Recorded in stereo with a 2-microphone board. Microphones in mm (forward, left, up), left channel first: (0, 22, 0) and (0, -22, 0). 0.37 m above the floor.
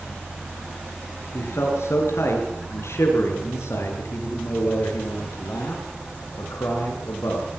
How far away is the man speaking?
About 7 m.